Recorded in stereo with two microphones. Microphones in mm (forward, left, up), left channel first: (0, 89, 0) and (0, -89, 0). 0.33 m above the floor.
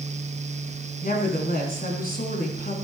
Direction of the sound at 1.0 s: 50° left (ahead or behind).